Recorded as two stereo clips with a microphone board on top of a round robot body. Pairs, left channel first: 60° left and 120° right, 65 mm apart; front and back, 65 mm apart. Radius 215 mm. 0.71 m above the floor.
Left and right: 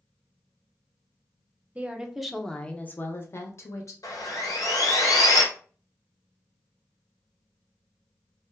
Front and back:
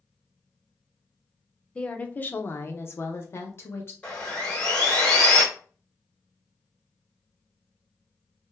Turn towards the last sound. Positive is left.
turn(degrees=70)